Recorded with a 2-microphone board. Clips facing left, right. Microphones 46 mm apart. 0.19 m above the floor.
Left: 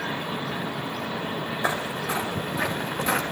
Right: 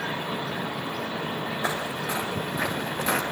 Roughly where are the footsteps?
Centre.